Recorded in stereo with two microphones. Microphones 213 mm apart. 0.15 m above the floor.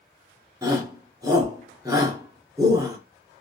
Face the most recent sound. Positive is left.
turn(degrees=-15)  # may be behind; listen again after turning